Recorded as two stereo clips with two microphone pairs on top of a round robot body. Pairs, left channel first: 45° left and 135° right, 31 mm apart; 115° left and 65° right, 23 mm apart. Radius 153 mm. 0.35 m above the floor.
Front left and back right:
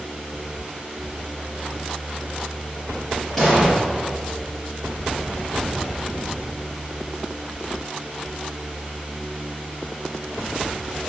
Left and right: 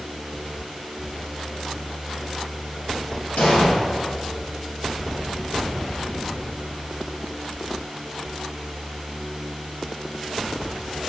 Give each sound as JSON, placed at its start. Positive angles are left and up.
{"t": 3.4, "sound": "an explosion", "azimuth_deg": 120, "distance_m": 3.0}